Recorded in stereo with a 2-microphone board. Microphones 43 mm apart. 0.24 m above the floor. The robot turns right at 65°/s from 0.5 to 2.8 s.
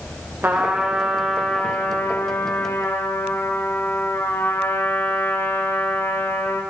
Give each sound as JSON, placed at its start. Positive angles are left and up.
{"t": 0.4, "sound": "a trumpet", "azimuth_deg": -50, "distance_m": 9.5}